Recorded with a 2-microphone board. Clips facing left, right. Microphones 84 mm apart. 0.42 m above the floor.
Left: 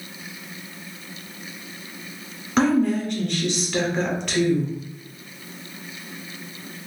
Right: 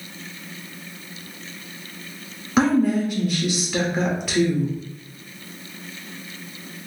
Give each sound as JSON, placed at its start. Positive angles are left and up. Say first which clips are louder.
{"t": 2.6, "sound": "a woman speaking", "louder": "right 1 dB", "side_deg": -5, "distance_m": 0.8}